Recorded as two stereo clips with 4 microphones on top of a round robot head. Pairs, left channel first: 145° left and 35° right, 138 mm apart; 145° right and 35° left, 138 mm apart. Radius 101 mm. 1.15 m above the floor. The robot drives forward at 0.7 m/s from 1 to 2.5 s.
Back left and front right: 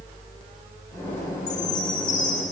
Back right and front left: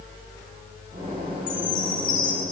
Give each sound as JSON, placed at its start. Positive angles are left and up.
{"t": 1.5, "sound": "a chime", "azimuth_deg": -175, "distance_m": 2.5}